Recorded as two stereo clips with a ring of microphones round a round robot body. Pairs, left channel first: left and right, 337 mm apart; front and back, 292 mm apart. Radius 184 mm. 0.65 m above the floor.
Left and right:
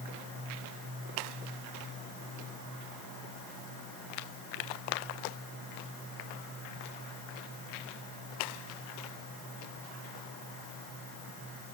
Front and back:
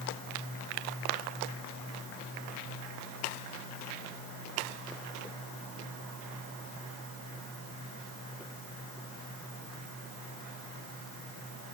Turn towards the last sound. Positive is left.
No sound to turn to.